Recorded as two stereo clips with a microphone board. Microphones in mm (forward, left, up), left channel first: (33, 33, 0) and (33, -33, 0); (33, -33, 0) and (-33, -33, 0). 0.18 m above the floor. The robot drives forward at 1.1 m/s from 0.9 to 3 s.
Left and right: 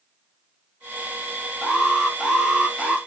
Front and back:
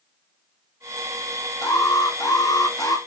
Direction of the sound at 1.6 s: 10° right.